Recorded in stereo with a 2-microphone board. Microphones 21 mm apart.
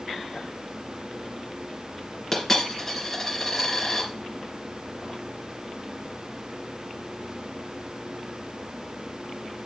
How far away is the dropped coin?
About 2.5 m.